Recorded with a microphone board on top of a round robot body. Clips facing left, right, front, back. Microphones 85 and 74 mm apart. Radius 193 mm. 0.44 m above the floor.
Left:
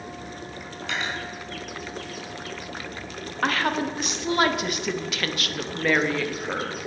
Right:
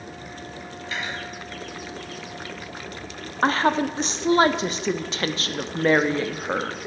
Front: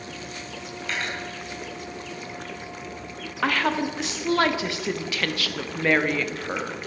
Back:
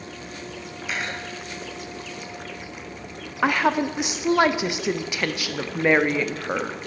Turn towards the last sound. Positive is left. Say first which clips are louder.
# right 4 dB, back 3 dB
turn(degrees=-120)